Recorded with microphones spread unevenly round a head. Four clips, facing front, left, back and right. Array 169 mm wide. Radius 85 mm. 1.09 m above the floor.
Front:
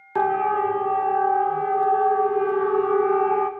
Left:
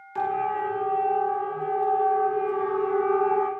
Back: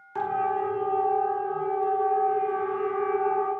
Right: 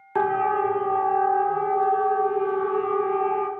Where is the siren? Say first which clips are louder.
Right 4 dB, front 5 dB; 40° right, 4 m; by 3.5 s 15° left, 2 m.